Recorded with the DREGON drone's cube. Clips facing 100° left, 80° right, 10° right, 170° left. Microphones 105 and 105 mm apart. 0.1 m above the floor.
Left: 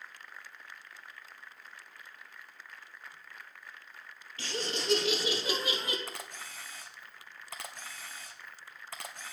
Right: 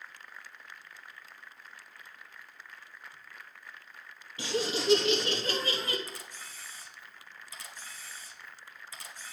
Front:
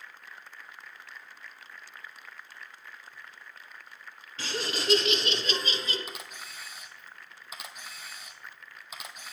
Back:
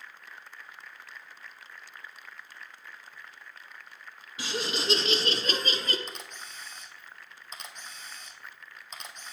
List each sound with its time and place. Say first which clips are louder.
4.4 s laughter: right 5 dB, back 1 dB; 130° right, 1.2 m; by 6.0 s 165° left, 1.6 m
6.1 s a camera shutter: left 2 dB, even; 70° left, 1.0 m